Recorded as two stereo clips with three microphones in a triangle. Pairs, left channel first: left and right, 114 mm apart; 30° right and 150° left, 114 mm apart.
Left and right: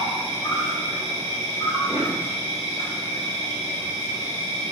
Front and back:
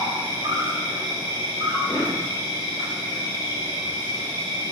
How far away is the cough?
About 1.4 m.